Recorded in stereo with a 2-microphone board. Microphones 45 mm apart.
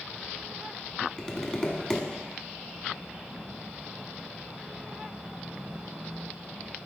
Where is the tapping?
25° left (ahead or behind), 1.0 m.